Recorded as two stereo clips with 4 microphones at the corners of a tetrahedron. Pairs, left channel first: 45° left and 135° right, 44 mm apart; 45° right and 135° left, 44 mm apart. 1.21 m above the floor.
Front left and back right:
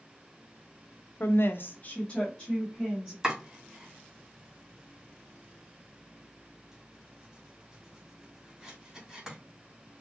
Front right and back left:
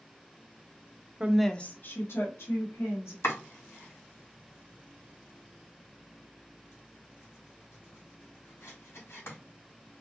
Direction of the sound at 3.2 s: 60° right.